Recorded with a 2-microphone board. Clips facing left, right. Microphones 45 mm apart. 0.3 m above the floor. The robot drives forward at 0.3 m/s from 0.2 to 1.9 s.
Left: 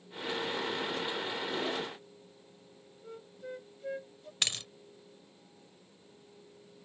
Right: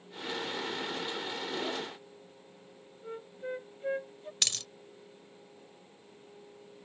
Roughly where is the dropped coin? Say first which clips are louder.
Left 1 dB; left.